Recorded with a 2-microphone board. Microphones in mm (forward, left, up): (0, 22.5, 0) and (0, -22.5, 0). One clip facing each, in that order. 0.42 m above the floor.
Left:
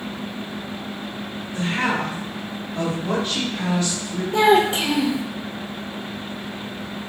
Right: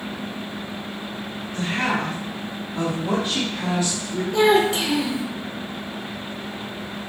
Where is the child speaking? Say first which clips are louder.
Left 1 dB; 25° left (ahead or behind), 0.7 m.